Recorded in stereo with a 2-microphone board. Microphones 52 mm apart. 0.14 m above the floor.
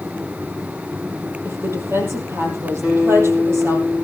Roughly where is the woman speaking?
Right.